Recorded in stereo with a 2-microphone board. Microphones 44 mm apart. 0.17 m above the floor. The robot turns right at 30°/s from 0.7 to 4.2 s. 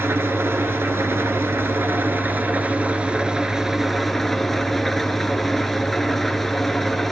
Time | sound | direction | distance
0.0 | an engine running | 100° right | 0.7 m